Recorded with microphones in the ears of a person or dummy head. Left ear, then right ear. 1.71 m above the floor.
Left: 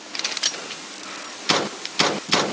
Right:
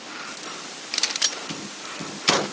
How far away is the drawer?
No drawer in this recording.